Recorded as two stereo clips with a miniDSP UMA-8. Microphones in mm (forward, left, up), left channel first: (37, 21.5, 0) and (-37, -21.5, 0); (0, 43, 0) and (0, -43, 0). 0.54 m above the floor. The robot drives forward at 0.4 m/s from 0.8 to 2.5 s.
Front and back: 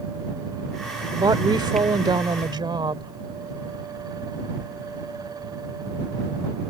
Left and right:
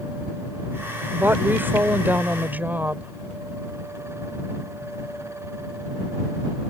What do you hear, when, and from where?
1.1 s a woman speaking: 145° right; by 3.1 s 155° right